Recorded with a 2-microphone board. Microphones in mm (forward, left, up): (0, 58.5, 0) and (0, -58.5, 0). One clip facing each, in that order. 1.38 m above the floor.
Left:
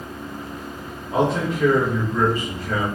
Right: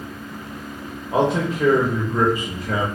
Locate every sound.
1.1 s a man speaking: 25° right (ahead or behind), 0.9 m